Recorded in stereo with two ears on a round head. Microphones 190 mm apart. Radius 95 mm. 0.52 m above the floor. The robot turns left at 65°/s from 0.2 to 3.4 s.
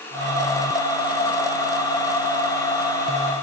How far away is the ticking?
No ticking in this recording.